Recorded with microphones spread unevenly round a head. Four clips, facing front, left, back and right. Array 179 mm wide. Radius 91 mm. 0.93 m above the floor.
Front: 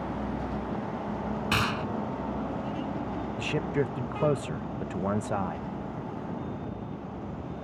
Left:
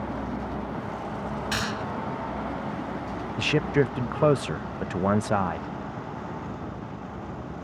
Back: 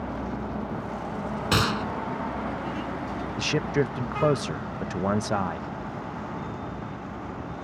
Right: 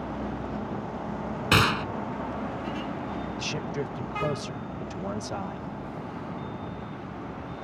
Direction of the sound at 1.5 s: 120° right.